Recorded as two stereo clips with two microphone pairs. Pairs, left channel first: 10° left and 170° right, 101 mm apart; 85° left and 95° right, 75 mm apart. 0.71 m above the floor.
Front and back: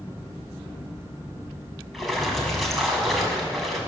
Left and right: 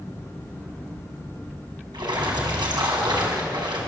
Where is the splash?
80° right, 6.5 m.